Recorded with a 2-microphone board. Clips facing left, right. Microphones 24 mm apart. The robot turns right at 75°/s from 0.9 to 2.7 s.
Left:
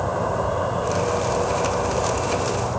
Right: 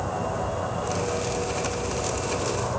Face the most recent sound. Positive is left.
turn(degrees=160)